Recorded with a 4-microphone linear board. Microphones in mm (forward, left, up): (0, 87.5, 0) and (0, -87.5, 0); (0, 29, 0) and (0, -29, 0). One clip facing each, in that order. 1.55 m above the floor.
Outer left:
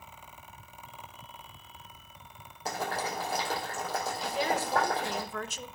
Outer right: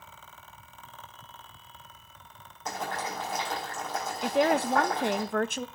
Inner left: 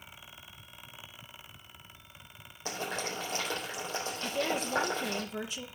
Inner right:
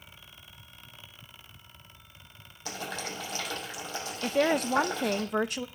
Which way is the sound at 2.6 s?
35° left (ahead or behind).